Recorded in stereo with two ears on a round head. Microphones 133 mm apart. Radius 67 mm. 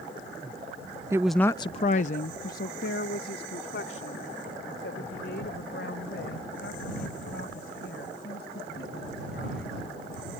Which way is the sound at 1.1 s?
20° right (ahead or behind).